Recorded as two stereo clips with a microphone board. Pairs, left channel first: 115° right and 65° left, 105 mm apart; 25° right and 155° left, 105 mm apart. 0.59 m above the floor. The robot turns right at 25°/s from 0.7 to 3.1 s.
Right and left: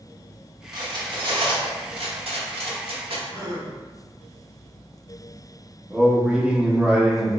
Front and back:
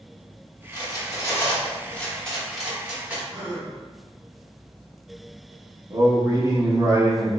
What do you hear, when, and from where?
0.7 s cutlery clinking: 25° left, 0.8 m; by 3.2 s 80° left, 0.8 m
3.3 s a gasp: 105° left, 1.1 m
5.9 s a man speaking: 140° left, 0.6 m